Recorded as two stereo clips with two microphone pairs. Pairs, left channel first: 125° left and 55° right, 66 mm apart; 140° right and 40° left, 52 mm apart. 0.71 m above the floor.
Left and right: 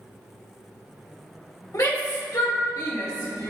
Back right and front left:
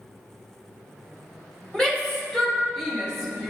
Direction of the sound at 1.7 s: 145° left.